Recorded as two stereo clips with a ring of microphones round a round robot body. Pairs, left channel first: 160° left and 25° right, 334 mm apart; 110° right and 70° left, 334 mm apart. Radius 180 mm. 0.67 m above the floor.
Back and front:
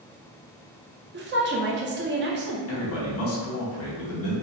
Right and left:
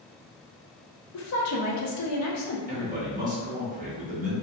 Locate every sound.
1.1 s a woman speaking: 80° right, 0.8 m
2.7 s a man speaking: 125° left, 1.3 m